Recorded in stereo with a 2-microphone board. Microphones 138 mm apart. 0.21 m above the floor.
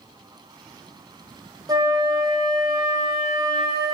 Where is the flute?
30° right (ahead or behind), 0.6 m.